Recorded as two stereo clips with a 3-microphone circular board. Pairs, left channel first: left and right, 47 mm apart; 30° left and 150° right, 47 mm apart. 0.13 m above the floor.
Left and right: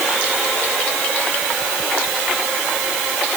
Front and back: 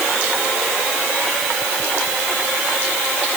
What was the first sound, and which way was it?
Only background noise.